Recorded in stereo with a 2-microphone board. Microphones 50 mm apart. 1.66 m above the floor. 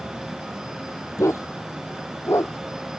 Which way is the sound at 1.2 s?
75° left (ahead or behind).